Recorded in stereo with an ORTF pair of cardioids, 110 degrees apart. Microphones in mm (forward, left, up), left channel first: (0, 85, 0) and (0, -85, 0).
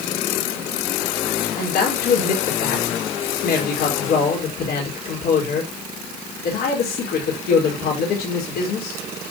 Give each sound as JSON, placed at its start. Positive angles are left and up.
{"t": 1.6, "sound": "a man speaking", "azimuth_deg": 65, "distance_m": 4.0}